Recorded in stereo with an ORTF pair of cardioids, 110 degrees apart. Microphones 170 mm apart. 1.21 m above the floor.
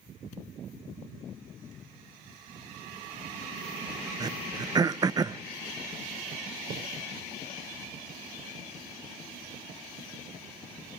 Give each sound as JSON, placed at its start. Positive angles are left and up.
{"t": 4.2, "sound": "throat clearing", "azimuth_deg": -25, "distance_m": 0.6}
{"t": 6.7, "sound": "a thud", "azimuth_deg": -70, "distance_m": 7.0}